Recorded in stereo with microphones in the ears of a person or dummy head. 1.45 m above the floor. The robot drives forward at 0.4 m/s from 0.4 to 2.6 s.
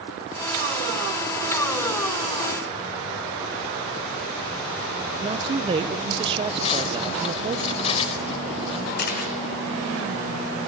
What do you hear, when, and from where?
5.2 s a woman speaking: 30° right (ahead or behind), 1.2 m
6.6 s cutlery clinking: 30° left (ahead or behind), 3.5 m
9.0 s a camera shutter: 55° left (ahead or behind), 4.5 m